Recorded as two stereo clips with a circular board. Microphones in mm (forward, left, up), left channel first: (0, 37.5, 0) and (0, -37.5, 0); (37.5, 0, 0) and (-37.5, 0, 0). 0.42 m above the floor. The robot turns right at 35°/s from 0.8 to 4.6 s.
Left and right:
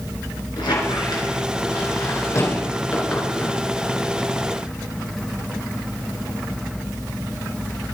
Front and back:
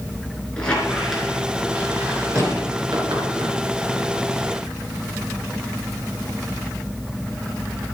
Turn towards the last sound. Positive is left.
turn(degrees=-150)